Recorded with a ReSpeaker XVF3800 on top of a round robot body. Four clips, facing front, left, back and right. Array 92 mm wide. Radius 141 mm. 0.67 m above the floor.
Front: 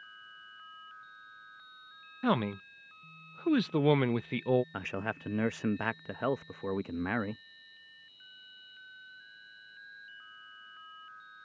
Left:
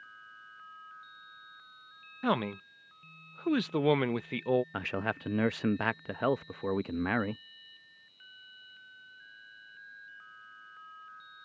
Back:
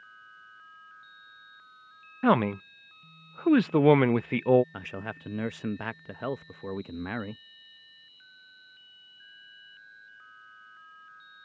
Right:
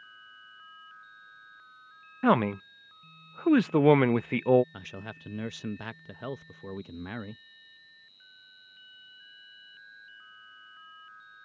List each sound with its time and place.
2.2 s a man speaking: 135° right
4.7 s a man speaking: 75° left